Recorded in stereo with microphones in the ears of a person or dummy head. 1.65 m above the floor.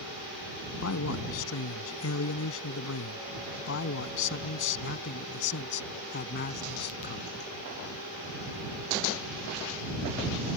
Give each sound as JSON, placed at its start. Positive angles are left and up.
{"t": 0.8, "sound": "a man speaking", "side_deg": 80}